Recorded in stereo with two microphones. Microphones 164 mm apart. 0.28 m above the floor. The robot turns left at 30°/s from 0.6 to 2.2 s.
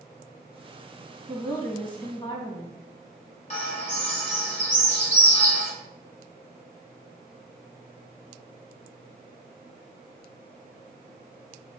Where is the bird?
40° left (ahead or behind), 1.1 m.